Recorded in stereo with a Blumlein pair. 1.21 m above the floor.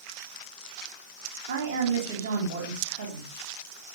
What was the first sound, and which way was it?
A woman speaking, 60° right.